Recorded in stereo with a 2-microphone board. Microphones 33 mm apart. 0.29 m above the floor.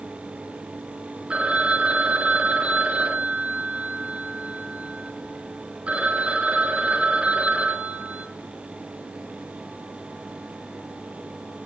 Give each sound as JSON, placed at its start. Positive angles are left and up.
{"t": 1.3, "sound": "a phone ringing", "side_deg": -40, "distance_m": 3.0}